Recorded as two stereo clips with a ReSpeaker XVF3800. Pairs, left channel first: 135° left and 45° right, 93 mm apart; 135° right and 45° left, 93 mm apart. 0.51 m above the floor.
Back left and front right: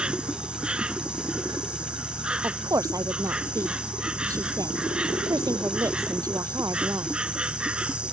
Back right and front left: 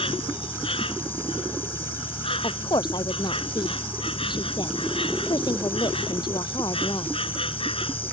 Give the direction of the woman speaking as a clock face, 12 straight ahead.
3 o'clock.